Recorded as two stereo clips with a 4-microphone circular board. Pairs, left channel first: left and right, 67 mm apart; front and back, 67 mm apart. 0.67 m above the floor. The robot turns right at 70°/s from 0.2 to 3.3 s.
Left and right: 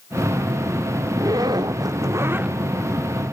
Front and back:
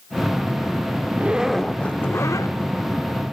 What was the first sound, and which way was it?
A zipper, 120° right.